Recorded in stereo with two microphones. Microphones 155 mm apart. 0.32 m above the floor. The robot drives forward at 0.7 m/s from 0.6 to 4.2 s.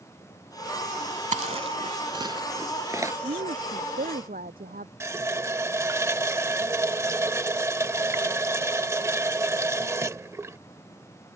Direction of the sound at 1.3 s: 50° right (ahead or behind).